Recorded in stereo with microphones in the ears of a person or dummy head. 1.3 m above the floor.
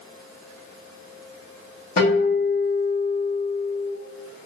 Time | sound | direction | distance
2.0 | a guitar | 50° left (ahead or behind) | 1.5 m